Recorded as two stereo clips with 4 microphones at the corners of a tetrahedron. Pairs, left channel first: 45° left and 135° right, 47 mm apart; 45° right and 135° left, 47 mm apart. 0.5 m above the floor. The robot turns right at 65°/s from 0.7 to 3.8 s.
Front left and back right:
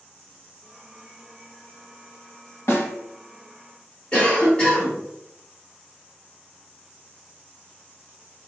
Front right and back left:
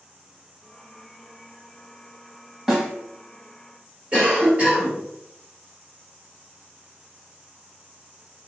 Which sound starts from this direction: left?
A cough, at 4.1 s.